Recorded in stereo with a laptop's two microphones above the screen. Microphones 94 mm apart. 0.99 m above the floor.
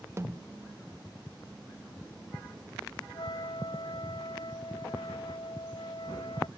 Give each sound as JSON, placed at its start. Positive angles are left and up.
{"t": 0.2, "sound": "a snare drum", "side_deg": -30}
{"t": 3.1, "sound": "a flute", "side_deg": 65}